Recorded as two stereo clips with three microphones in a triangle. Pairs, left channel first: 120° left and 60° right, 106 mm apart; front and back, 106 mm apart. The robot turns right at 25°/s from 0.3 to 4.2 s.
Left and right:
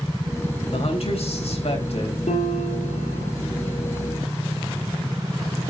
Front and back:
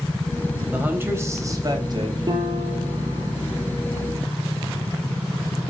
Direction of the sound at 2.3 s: 125° left.